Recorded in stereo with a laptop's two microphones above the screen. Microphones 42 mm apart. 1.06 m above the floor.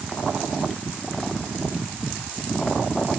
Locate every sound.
Only background noise.